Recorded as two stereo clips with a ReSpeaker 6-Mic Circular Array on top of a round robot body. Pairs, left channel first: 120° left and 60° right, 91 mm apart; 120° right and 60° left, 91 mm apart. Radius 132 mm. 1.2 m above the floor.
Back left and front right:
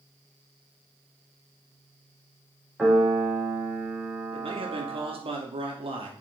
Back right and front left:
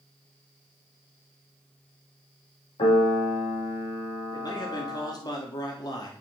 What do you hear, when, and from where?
2.8 s a piano: 145° right, 5.5 m
4.3 s a man speaking: 75° right, 2.5 m